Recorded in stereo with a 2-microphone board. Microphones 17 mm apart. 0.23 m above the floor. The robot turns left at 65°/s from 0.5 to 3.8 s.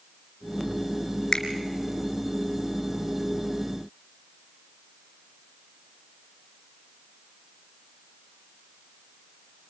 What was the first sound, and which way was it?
A finger snap, 40° left (ahead or behind).